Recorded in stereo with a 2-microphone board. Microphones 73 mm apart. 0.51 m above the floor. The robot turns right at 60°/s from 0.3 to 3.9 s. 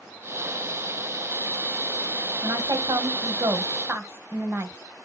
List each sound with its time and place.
2.4 s a woman speaking: 125° right, 2.5 m; by 4.7 s 35° right, 2.5 m